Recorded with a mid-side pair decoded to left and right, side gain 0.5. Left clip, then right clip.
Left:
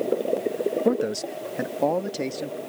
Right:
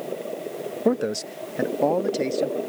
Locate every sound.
0.8 s a man speaking: 10° right; by 2.6 s 5° right